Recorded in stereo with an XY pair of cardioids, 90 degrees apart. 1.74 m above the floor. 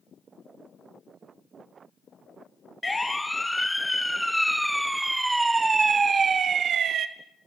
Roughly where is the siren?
Ahead.